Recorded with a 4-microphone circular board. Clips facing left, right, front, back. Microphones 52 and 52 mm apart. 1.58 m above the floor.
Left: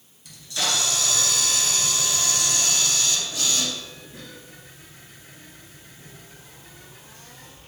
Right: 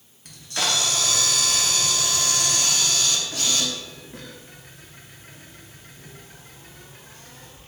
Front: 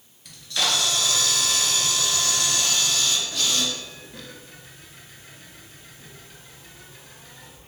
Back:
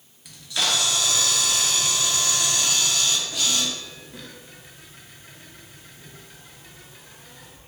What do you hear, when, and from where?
0.2 s a camera shutter: 100° right, 0.6 m